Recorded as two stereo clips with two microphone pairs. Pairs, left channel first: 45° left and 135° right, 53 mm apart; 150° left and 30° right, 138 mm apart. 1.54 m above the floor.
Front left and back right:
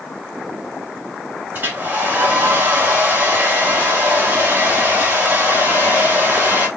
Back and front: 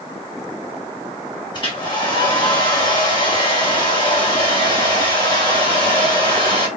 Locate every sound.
1.5 s a hair dryer: 175° right, 1.2 m